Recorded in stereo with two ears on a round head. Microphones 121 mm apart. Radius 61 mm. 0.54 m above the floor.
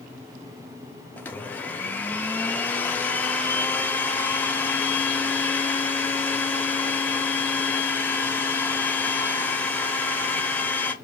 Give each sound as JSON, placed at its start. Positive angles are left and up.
{"t": 1.2, "sound": "a blender", "side_deg": 10, "distance_m": 0.5}